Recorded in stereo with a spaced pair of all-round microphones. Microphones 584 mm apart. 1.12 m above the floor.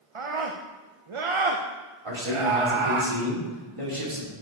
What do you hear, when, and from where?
0.1 s a scream: 60° right (ahead or behind), 0.7 m
2.0 s a man speaking: 60° right (ahead or behind), 3 m